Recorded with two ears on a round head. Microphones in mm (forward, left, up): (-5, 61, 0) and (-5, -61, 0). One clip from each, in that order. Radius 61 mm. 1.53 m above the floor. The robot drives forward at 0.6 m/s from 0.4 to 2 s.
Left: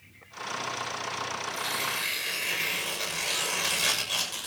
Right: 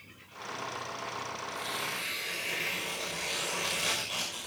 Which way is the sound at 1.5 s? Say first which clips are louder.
Left 4 dB; 45° left (ahead or behind).